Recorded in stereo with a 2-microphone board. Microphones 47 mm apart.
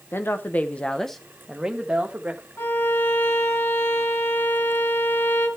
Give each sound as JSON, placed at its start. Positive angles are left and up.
{"t": 0.1, "sound": "a woman speaking", "side_deg": 50, "distance_m": 0.9}
{"t": 2.6, "sound": "a violin", "side_deg": 65, "distance_m": 2.5}